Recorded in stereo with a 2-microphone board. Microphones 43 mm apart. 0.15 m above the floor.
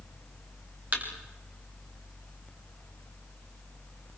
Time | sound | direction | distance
0.9 | a thud | 40° right (ahead or behind) | 5.5 m